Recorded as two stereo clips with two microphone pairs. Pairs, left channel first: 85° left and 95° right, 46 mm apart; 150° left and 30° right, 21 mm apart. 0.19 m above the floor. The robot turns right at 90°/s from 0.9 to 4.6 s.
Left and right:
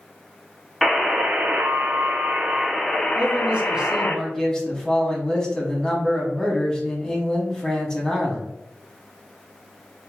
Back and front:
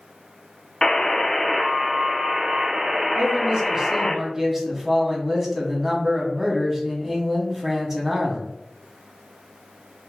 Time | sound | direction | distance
0.8 | a buzzer | 175° right | 0.6 m
3.1 | a man speaking | 95° right | 1.0 m